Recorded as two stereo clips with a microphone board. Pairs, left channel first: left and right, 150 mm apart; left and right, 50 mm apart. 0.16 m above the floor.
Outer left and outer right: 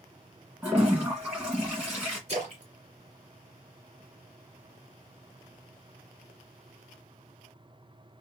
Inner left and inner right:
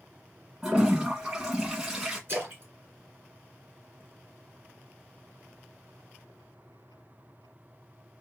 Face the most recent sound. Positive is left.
turn(degrees=-45)  # may be behind; listen again after turning